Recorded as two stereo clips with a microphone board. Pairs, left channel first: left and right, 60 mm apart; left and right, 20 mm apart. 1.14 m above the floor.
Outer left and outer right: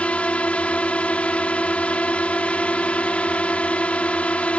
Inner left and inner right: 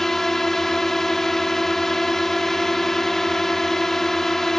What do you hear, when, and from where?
0.0 s a drone: 20° left (ahead or behind)